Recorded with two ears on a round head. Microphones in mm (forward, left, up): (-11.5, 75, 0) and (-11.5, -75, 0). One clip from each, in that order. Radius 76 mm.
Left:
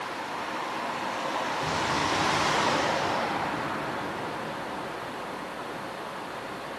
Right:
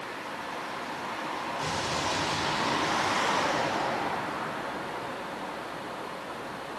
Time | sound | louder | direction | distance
1.6 | an explosion | left 2 dB | 30° right (ahead or behind) | 6.5 m